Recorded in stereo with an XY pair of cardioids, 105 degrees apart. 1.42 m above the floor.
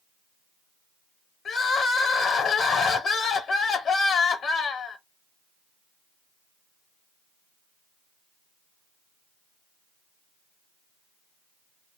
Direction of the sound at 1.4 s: 50° left.